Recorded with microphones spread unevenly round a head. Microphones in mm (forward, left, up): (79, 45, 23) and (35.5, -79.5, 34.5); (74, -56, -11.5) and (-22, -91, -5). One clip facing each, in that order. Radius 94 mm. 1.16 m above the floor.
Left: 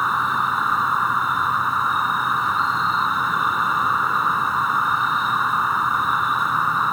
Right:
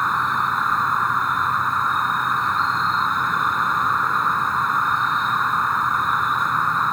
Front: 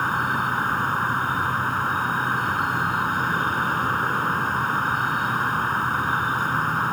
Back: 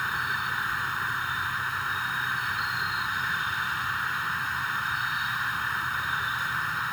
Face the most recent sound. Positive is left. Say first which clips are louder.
# even, front 7 dB
turn(degrees=-20)